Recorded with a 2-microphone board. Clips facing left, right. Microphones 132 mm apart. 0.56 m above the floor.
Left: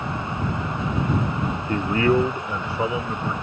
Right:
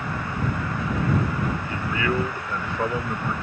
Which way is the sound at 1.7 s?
55° left (ahead or behind).